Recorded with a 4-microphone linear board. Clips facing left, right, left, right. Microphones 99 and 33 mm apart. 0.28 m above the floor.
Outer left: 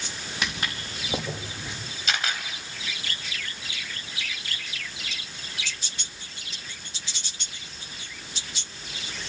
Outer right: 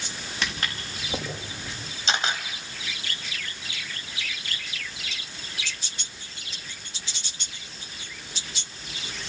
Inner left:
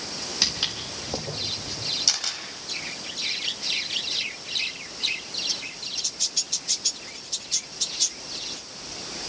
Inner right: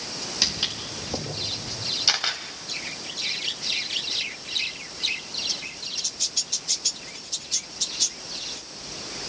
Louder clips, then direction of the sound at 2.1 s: Outer right 3 dB, inner right 4 dB; 30° right (ahead or behind).